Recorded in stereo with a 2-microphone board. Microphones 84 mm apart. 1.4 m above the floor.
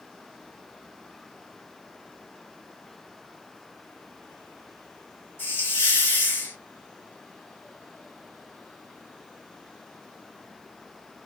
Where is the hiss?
30° left (ahead or behind), 3 m.